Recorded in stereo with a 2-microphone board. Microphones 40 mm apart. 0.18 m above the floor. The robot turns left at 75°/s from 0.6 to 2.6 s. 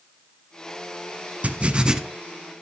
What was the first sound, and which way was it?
Writing, 115° right.